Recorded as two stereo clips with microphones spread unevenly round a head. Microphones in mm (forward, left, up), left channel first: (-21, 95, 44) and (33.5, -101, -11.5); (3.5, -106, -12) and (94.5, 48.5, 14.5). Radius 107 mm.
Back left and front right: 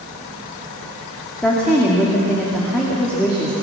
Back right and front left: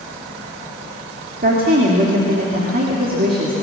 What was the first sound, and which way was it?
A woman speaking, 20° left.